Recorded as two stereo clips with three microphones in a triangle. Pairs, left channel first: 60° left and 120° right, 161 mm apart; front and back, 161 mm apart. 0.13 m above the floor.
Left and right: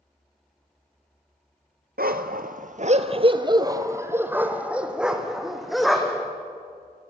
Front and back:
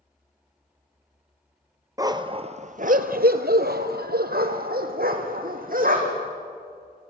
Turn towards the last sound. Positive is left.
turn(degrees=150)